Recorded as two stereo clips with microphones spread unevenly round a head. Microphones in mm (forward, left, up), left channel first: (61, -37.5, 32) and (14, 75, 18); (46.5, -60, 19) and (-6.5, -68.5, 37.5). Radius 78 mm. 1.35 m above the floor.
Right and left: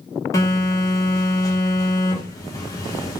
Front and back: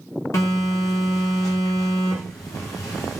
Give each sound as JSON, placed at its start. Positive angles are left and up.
{"t": 0.3, "sound": "a phone buzzing", "azimuth_deg": -5, "distance_m": 1.5}